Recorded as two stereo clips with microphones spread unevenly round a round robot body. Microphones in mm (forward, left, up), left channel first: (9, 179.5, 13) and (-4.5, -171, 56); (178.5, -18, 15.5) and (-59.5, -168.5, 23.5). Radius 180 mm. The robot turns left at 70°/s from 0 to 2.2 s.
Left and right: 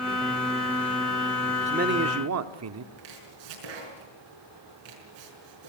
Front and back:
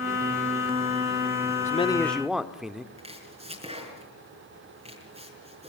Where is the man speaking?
15° right, 1.1 m; by 2.9 s 60° right, 1.1 m.